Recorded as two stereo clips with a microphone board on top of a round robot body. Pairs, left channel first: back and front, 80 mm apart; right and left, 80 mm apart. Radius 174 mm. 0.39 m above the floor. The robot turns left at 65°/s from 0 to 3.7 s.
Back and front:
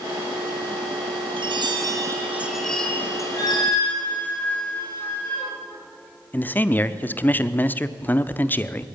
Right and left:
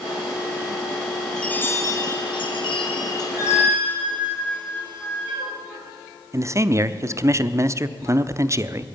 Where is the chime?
10° right, 2.5 m; by 3.9 s 160° right, 2.5 m.